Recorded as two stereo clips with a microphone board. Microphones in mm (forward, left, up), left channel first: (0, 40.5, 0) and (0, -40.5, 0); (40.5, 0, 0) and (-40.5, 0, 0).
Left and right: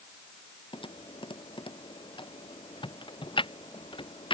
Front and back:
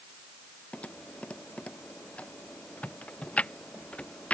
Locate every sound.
0.7 s typing on a keyboard: 75° left